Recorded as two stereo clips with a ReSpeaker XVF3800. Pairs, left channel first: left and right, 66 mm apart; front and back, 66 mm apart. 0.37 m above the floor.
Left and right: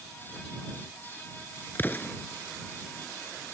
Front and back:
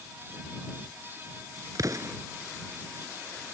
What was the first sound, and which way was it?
An explosion, 150° left.